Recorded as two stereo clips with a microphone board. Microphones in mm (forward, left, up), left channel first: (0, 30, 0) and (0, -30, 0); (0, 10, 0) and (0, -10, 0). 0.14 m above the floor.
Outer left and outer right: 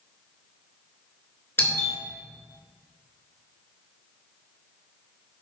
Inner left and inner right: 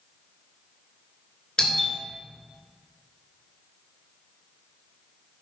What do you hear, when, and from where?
1.6 s a doorbell: 35° left (ahead or behind), 2.5 m